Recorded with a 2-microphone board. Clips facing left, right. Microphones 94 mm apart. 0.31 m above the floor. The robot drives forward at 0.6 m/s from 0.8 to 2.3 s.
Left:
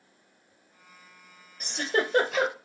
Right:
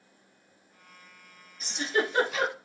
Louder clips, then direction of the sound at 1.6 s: Left 1 dB; 70° left (ahead or behind).